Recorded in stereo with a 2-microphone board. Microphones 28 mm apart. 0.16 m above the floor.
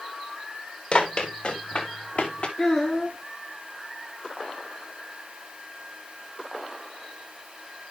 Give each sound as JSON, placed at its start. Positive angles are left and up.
{"t": 0.9, "sound": "running footsteps", "side_deg": 50, "distance_m": 4.0}
{"t": 2.6, "sound": "a child speaking", "side_deg": 35, "distance_m": 1.3}